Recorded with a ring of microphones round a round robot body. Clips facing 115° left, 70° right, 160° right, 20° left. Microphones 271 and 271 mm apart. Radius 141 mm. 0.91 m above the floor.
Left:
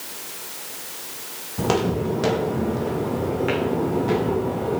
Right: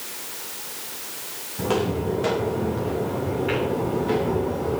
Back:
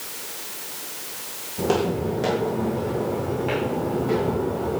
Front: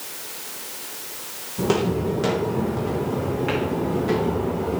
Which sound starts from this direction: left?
Footsteps, at 1.6 s.